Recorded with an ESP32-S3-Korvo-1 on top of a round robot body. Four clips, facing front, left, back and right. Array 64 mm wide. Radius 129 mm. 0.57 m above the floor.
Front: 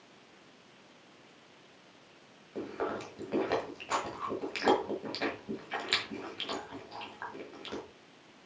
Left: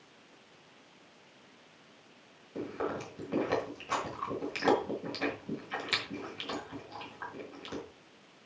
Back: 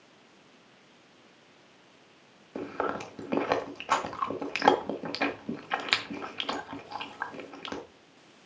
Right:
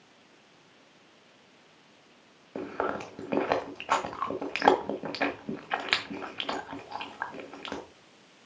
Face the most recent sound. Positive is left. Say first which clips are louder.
# right 4 dB, back 3 dB
turn(degrees=-120)